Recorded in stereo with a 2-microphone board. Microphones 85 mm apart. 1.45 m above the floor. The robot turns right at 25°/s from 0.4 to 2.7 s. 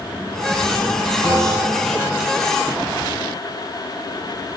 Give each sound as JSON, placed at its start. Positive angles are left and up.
{"t": 1.2, "sound": "a bell", "side_deg": -10, "distance_m": 3.0}